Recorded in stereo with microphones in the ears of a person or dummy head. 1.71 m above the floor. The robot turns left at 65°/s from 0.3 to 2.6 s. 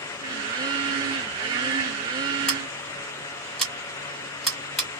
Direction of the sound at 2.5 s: 5° left (ahead or behind).